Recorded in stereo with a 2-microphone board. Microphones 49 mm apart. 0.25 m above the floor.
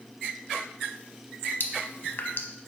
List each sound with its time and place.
1.6 s dripping: 50° left (ahead or behind), 0.8 m